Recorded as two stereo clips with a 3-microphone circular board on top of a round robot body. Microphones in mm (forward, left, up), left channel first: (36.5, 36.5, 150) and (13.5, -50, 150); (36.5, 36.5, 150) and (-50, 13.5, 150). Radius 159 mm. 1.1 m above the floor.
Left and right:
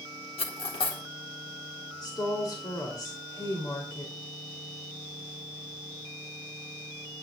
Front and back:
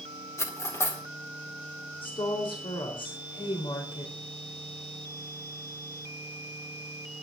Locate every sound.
0.4 s cutlery clinking: 75° left, 2 m
2.0 s a woman speaking: 30° left, 4 m